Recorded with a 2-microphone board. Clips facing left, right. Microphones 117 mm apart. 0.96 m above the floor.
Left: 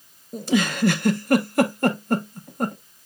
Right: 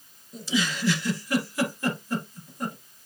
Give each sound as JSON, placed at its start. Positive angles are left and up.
{"t": 0.3, "sound": "a giggle", "side_deg": 55, "distance_m": 0.5}